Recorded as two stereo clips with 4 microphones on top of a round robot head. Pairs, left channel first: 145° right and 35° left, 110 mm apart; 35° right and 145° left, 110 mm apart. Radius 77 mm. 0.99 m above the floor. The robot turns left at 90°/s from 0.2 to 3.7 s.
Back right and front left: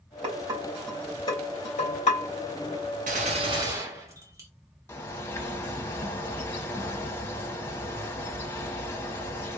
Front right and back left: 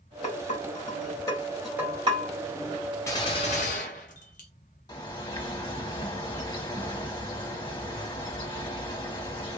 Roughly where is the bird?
Right.